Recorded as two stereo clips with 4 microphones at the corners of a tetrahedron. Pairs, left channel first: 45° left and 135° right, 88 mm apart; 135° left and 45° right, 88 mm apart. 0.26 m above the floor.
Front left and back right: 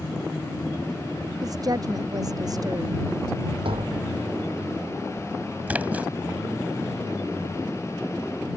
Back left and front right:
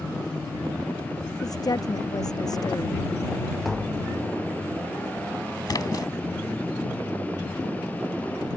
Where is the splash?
155° left.